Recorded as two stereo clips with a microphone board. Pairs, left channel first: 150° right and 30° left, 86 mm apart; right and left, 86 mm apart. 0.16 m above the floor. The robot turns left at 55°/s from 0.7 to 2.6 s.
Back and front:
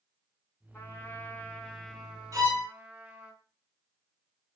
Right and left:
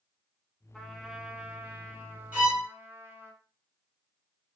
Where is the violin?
25° left, 1.1 m; by 2.7 s 10° left, 1.1 m.